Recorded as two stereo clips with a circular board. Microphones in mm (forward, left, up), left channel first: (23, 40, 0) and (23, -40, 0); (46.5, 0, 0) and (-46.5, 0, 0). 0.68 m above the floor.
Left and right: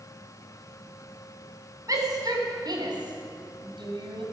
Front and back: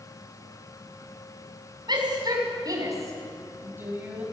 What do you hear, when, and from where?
1.9 s a shout: 135° right, 6 m; by 4.2 s 105° right, 5.5 m